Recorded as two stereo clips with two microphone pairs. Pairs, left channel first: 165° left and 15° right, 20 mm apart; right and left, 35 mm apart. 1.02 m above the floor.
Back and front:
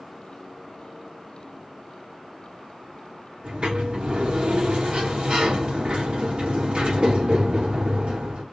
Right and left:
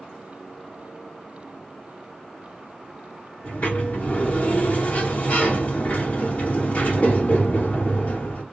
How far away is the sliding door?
About 2 m.